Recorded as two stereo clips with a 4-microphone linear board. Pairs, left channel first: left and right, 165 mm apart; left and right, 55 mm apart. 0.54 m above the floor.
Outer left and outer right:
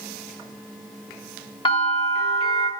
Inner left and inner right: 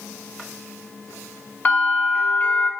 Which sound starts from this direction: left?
A bell, at 1.6 s.